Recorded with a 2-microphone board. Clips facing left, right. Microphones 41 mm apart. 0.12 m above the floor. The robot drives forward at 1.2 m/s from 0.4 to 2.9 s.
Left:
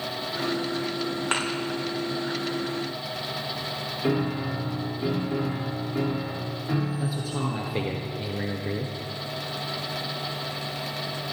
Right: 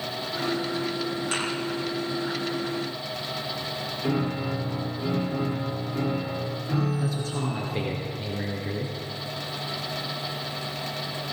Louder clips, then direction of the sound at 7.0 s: Even; 10° left (ahead or behind).